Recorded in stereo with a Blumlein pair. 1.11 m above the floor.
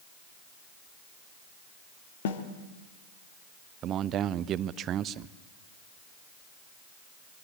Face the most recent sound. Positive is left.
turn(degrees=-30)